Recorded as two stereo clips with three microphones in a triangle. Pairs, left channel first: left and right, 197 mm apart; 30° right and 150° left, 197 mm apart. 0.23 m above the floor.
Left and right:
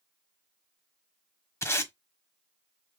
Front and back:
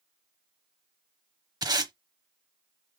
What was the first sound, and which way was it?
Tape being pulled, 135° left.